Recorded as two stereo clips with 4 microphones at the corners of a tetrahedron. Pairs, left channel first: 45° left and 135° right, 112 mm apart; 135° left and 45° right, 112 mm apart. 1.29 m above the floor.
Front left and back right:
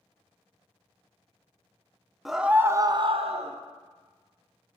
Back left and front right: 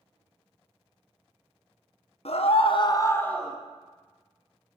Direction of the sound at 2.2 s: 135° left.